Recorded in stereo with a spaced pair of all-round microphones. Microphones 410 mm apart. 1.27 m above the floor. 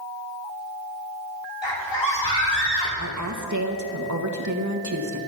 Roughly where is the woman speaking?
Right.